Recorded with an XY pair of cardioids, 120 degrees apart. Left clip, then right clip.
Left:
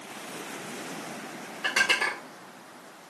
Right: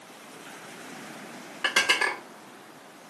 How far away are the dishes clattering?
About 3 m.